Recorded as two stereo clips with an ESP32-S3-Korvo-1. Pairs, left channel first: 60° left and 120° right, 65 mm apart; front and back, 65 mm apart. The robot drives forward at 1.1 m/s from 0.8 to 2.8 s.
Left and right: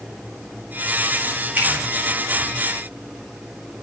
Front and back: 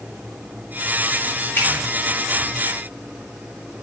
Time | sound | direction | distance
1.6 | a finger snap | 60° right | 4.5 m